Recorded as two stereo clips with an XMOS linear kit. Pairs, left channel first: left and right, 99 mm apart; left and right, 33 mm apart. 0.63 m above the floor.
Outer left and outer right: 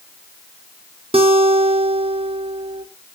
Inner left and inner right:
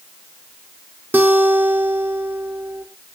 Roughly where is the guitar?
Right.